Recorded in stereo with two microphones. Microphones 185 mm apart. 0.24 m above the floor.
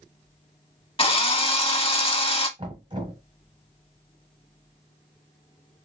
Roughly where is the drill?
Left.